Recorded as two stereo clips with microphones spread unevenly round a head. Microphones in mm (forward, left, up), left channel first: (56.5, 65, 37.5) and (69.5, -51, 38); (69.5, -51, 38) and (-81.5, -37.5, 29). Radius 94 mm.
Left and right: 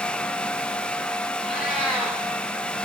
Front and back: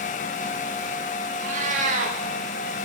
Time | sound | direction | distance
1.4 | a cat meowing | 175° right | 1.0 m